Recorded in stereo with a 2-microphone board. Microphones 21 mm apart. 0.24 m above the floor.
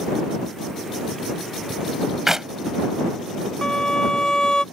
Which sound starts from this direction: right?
A clap, at 2.3 s.